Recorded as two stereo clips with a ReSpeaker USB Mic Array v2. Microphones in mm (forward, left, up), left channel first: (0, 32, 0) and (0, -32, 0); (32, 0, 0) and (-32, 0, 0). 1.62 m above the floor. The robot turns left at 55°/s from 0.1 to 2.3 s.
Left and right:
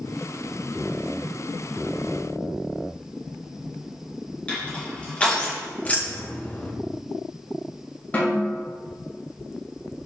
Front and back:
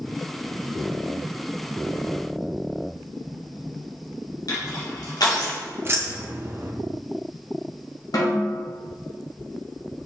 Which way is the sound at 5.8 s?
145° left.